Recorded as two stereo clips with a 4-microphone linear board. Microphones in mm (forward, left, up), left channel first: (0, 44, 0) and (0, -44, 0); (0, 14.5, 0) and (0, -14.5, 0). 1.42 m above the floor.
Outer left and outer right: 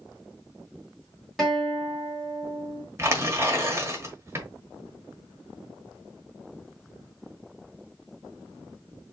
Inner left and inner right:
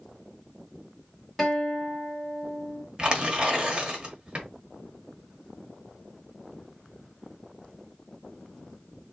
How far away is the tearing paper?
About 1.4 m.